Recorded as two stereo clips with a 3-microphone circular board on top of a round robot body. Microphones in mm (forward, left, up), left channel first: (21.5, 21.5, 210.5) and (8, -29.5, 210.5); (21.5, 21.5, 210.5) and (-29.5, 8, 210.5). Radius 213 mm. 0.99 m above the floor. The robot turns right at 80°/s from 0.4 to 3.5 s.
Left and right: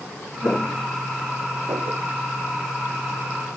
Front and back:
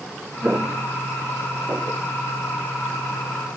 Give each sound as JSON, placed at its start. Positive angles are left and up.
{"t": 0.4, "sound": "footsteps", "azimuth_deg": 130}